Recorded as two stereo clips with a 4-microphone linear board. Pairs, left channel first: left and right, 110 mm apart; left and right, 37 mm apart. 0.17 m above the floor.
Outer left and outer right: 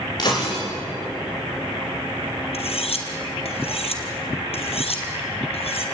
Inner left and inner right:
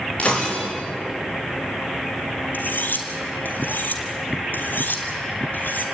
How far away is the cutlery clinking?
About 2.5 m.